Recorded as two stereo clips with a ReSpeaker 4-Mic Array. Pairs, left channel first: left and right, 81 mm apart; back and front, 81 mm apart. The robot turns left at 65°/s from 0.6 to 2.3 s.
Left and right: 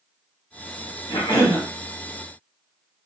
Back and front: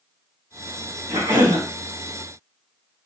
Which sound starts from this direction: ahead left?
A cough, at 1.1 s.